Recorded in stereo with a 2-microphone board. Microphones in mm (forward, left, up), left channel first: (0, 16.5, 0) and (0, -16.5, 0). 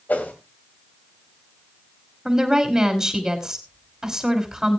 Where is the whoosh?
60° left (ahead or behind), 2.5 m.